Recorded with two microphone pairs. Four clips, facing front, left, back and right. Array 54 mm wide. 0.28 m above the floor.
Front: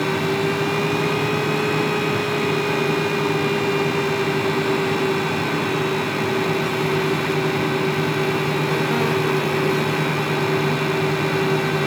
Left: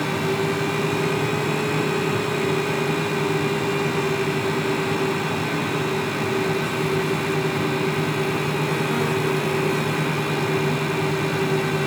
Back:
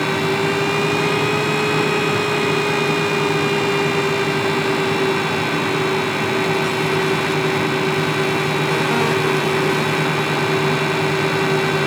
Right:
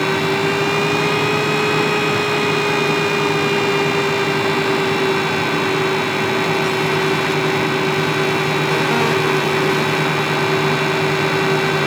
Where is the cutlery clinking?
I don't hear cutlery clinking.